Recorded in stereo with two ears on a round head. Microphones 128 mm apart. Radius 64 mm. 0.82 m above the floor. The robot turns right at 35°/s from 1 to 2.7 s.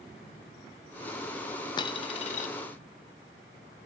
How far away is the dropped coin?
About 0.6 m.